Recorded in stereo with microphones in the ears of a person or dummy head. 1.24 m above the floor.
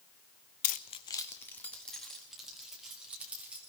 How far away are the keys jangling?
About 0.6 m.